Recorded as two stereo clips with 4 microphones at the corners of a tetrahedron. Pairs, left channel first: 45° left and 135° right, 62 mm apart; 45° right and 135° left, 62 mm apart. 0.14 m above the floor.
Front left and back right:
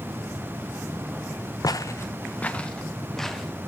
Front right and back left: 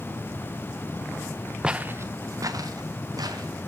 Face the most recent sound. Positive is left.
turn(degrees=130)